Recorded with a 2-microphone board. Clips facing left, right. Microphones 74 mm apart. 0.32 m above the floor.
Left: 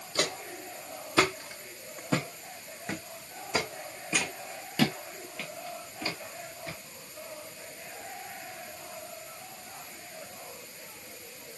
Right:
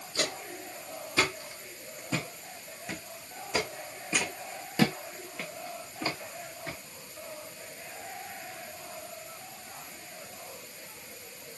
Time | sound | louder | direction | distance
0.1 | footsteps | left 2 dB | 85° left | 2 m